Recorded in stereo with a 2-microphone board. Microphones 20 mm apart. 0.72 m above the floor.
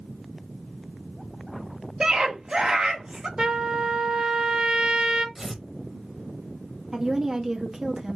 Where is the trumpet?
40° right (ahead or behind), 1.1 m.